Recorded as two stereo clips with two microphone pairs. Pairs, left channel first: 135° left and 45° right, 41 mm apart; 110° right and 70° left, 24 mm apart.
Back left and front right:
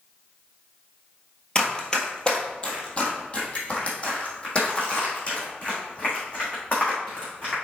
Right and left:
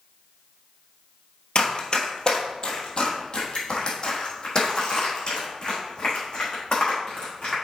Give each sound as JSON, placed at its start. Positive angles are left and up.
{"t": 1.6, "sound": "running footsteps", "azimuth_deg": -160, "distance_m": 1.4}